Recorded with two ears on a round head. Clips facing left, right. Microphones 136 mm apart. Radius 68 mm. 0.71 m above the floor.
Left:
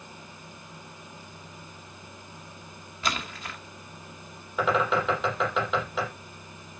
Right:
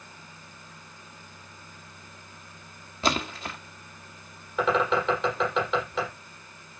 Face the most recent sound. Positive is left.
turn(degrees=0)  # may be behind; listen again after turning